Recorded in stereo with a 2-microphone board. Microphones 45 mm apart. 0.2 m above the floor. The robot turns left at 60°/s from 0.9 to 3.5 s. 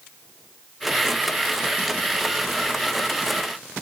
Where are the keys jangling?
No keys jangling in this recording.